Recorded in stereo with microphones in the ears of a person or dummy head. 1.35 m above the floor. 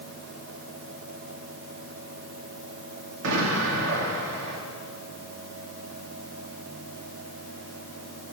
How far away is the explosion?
About 2 m.